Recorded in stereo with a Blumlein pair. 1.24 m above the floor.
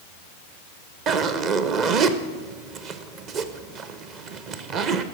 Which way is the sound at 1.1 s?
35° right.